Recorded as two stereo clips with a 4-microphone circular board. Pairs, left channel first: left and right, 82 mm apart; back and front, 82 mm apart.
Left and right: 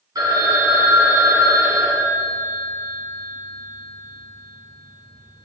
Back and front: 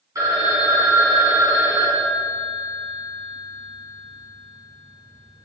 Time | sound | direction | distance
0.1 | a phone ringing | 50° right | 1.7 m